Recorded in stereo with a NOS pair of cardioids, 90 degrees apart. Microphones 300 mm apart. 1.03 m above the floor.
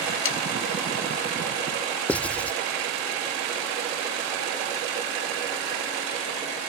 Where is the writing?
5° left.